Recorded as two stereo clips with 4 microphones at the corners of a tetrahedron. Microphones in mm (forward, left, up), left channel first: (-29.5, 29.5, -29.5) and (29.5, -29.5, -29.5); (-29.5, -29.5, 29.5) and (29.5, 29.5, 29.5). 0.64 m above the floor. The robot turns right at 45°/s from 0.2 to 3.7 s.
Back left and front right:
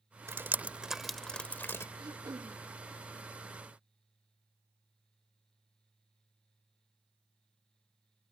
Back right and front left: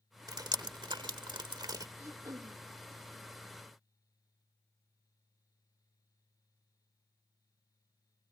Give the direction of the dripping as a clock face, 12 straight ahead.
12 o'clock.